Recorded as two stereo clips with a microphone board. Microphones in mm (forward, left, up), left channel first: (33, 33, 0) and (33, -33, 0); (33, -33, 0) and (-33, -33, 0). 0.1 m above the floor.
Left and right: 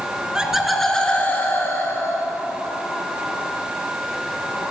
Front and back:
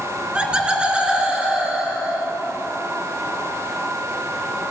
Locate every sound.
0.3 s laughter: 135° right, 1.1 m; by 2.3 s 105° left, 1.6 m